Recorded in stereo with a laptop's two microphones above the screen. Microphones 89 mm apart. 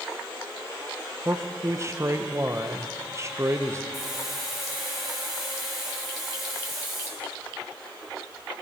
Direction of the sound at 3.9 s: Centre (ahead or behind).